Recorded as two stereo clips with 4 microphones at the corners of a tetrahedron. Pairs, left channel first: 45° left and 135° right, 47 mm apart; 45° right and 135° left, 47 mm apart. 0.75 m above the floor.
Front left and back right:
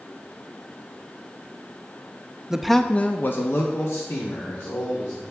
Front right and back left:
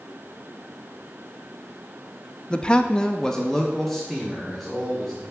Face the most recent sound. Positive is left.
turn(degrees=40)